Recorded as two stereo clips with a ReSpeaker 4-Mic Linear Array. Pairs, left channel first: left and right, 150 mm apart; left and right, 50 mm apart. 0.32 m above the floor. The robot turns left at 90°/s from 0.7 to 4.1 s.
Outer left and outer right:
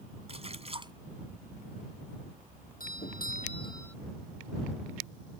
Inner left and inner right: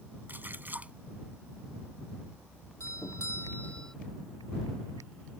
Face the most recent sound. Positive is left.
turn(degrees=-5)